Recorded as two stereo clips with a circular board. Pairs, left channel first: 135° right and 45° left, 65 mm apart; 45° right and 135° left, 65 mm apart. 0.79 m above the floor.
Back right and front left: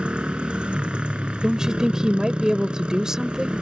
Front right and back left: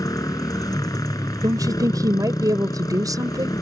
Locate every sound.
0.0 s a motorcycle: 25° right
1.4 s a woman speaking: 125° left